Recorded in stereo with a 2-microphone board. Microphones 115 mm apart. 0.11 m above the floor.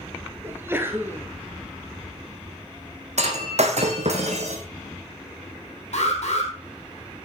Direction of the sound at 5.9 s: 70° left (ahead or behind).